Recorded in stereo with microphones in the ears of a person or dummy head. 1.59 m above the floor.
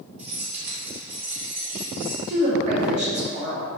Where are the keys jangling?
30° right (ahead or behind), 0.6 m.